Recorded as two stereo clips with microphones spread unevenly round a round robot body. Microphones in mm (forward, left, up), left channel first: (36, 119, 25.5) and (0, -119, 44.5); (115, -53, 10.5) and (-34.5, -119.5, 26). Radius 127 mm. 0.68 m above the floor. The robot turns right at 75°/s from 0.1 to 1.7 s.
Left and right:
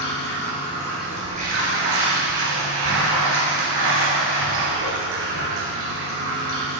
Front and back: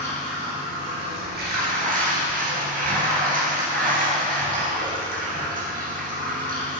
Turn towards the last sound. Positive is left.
turn(degrees=-135)